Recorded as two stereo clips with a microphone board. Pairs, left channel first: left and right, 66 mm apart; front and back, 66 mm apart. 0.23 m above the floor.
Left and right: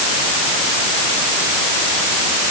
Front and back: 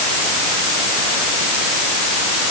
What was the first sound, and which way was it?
Only background noise.